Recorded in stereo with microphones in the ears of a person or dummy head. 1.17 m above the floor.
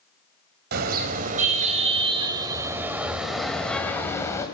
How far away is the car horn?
About 3 m.